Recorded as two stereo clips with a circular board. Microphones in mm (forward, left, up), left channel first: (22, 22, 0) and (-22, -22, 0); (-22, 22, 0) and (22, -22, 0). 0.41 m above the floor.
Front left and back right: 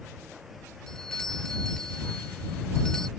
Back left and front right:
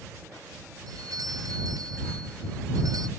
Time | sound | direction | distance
0.9 | a doorbell | 35° right | ?